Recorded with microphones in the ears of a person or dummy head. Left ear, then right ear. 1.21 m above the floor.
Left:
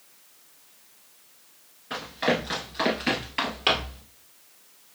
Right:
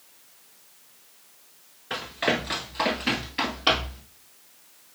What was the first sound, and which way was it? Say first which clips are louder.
Running footsteps: even; 10° right (ahead or behind).